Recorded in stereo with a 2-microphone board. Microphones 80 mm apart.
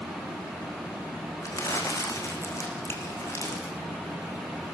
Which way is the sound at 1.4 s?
40° left (ahead or behind).